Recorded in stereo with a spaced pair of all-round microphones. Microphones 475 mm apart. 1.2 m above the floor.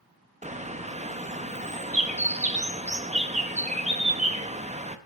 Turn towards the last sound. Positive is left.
turn(degrees=-15)  # may be behind; listen again after turning